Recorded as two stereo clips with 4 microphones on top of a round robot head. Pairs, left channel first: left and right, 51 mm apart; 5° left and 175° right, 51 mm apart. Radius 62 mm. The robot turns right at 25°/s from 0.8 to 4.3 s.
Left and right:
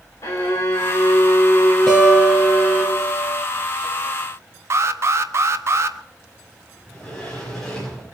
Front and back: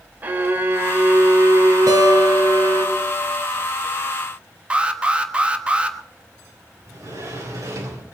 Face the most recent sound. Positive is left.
turn(degrees=170)